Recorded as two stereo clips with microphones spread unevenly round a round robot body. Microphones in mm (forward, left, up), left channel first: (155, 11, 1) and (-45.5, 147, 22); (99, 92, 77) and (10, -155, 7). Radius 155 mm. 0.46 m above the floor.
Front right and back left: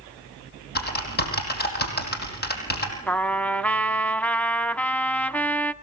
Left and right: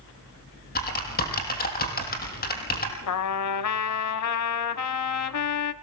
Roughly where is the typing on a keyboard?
Ahead.